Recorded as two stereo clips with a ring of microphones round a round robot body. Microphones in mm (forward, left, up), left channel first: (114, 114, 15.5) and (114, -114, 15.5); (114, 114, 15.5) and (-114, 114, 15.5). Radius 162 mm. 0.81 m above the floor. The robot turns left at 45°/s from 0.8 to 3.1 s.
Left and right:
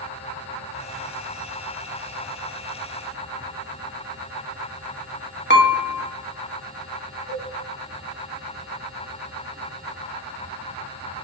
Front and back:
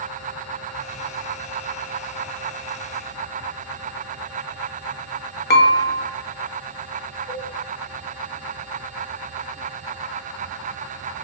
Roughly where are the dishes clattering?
Ahead left.